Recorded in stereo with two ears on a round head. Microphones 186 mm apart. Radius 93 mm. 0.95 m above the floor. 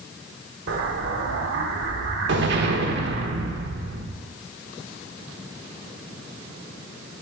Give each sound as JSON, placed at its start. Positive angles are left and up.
{"t": 0.7, "sound": "an explosion", "side_deg": -60, "distance_m": 0.9}